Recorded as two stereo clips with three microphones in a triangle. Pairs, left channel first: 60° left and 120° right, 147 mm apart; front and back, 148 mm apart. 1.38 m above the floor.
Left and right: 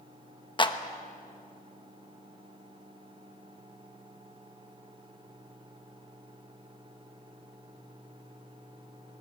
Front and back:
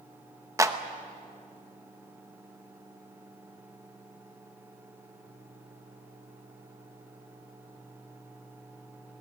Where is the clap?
115° left, 1.0 m.